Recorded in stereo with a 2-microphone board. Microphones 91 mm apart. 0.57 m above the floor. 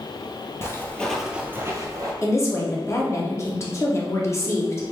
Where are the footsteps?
30° left (ahead or behind), 0.9 m; by 2.1 s 45° right (ahead or behind), 1.1 m.